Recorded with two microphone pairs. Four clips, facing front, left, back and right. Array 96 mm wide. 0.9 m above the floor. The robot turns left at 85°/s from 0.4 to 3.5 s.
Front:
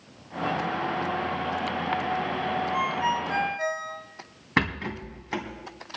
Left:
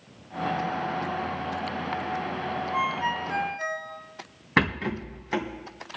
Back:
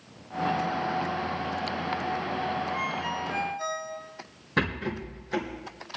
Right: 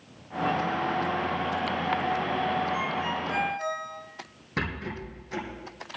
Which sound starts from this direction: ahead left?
A rattle, at 4.6 s.